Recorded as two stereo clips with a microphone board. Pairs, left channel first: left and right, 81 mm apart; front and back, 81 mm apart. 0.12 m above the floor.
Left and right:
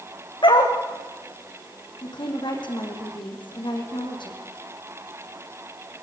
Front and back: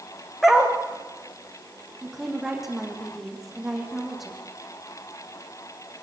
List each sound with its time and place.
0.4 s a dog barking: 90° left, 3.5 m
2.0 s a woman speaking: 95° left, 5.5 m